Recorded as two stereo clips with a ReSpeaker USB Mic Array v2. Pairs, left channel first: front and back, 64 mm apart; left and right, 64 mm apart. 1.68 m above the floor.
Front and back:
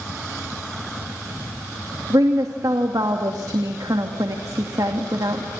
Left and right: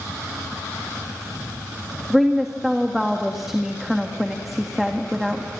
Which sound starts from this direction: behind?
A woman speaking, at 2.1 s.